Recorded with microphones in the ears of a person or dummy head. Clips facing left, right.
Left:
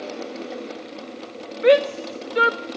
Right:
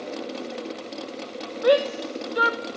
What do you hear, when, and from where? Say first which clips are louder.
1.6 s a shout: left 4 dB; 35° left (ahead or behind), 0.5 m